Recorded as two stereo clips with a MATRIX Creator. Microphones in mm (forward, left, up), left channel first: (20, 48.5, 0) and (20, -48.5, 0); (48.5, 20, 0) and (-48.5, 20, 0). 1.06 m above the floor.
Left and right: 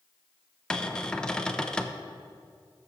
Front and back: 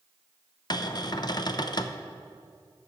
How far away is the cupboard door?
About 0.5 m.